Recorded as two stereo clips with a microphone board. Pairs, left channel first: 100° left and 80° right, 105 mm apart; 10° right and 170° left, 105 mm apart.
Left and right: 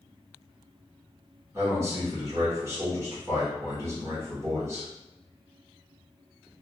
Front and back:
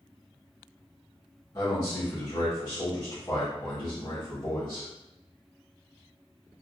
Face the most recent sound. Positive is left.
turn(degrees=-35)